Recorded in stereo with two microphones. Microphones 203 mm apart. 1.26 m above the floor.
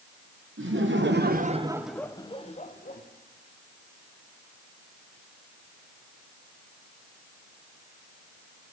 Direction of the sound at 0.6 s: 75° right (ahead or behind).